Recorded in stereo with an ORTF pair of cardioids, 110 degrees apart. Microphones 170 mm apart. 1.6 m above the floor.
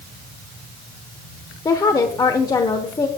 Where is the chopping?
I don't hear chopping.